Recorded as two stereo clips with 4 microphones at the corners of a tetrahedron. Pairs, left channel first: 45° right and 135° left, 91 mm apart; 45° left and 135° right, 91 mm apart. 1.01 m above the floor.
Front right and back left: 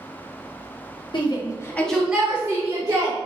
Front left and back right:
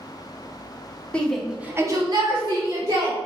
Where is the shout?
30° right, 1.1 m; by 3.2 s 175° right, 2 m.